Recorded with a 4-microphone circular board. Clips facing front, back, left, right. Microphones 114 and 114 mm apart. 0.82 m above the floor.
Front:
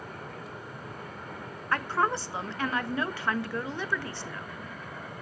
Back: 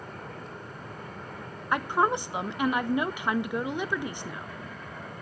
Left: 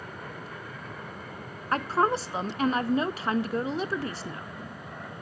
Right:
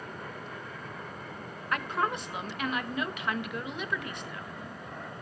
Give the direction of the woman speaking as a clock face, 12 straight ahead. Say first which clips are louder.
Back 3 dB, left 6 dB; 8 o'clock.